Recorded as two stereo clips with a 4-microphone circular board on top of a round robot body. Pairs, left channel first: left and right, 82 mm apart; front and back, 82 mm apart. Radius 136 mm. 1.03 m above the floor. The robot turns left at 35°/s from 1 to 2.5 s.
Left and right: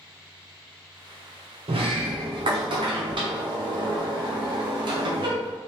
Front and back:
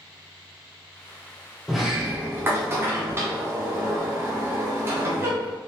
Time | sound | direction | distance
1.7 | a sliding door | 90° right | 0.5 m